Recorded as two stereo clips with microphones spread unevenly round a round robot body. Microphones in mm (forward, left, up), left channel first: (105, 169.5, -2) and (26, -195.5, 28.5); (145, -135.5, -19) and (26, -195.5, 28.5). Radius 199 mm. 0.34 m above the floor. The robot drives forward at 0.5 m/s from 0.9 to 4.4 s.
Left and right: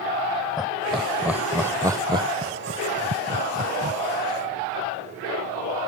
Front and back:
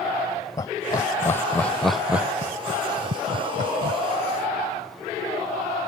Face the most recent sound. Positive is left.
turn(degrees=-170)